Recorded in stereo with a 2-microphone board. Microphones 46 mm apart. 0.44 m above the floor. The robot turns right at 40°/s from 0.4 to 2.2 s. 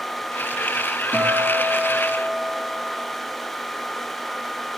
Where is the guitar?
35° right, 5 m; by 3.4 s 10° left, 5 m.